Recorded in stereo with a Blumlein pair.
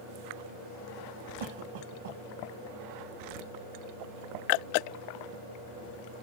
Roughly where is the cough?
Ahead right.